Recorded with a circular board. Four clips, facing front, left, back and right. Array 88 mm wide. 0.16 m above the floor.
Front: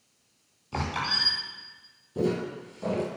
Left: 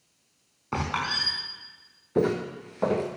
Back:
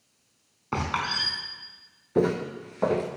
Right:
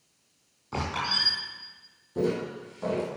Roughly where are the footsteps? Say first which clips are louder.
Left 3 dB, back 4 dB; behind left.